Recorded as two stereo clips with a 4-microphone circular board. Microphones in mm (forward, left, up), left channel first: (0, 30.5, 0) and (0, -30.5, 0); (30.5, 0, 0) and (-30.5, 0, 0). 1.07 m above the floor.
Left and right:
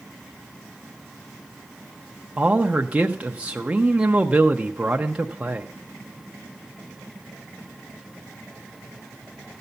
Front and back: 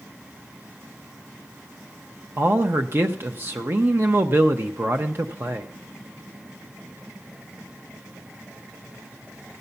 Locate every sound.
2.4 s a man speaking: 150° right, 0.7 m